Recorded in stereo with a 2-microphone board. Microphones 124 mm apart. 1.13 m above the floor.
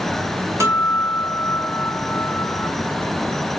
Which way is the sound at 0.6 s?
25° right (ahead or behind).